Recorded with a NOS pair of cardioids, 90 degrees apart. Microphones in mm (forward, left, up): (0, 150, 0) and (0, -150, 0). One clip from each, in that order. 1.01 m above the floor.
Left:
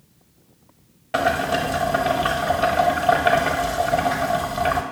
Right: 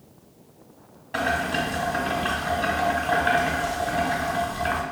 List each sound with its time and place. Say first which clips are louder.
1.1 s boiling: left 4 dB; 40° left, 0.9 m